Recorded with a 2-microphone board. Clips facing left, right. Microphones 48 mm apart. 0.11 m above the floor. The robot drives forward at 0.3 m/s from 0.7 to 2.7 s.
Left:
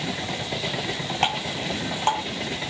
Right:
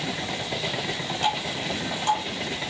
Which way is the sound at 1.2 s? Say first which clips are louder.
Left 1 dB; 60° left (ahead or behind).